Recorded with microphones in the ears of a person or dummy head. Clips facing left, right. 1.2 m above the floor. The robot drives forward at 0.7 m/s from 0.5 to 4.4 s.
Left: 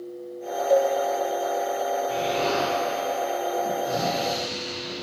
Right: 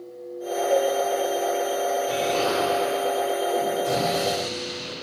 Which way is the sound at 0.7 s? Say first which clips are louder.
Left 2 dB; 65° left (ahead or behind).